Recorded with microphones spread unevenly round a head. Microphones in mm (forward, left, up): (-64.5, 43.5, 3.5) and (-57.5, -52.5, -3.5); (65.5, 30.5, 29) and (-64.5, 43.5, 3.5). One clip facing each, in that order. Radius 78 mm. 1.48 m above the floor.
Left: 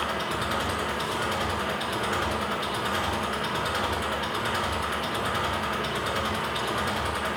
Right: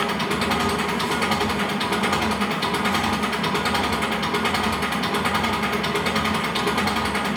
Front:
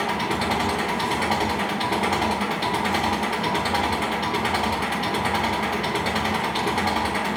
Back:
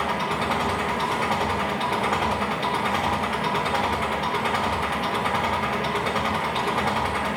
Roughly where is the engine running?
Ahead right.